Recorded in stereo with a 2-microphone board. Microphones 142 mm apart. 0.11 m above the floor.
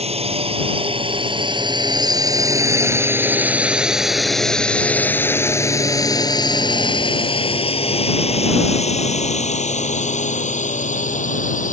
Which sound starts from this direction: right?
A drone, at 0.0 s.